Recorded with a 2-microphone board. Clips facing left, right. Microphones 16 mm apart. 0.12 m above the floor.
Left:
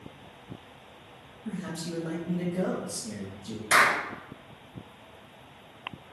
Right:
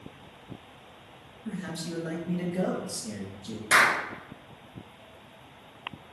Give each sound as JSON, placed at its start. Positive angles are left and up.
{"t": 1.4, "sound": "a man speaking", "side_deg": -20, "distance_m": 1.1}
{"t": 3.7, "sound": "a clap", "side_deg": -30, "distance_m": 1.1}